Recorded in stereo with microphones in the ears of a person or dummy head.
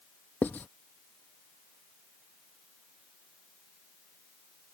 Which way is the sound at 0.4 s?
10° left (ahead or behind).